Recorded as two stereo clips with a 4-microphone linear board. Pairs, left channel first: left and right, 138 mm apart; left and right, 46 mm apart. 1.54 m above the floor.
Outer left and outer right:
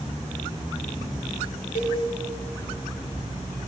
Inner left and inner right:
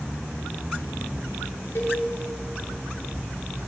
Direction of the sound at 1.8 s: 65° left (ahead or behind).